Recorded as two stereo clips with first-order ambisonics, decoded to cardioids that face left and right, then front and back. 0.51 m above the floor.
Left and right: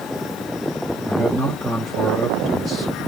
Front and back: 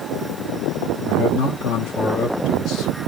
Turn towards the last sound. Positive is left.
turn(degrees=-10)